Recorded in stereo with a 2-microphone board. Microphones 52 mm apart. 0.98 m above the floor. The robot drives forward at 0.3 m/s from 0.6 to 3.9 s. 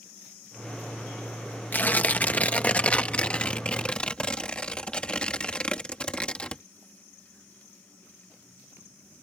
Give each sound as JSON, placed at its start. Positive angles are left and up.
{"t": 1.7, "sound": "tearing paper", "side_deg": 35}